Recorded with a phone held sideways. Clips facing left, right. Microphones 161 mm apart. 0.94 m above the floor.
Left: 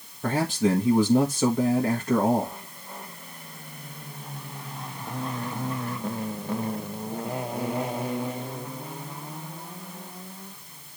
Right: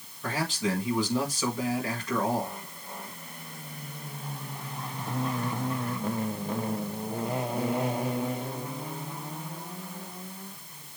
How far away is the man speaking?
About 1.4 m.